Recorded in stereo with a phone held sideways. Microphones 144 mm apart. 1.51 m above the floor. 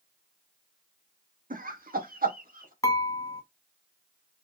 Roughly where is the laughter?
Right.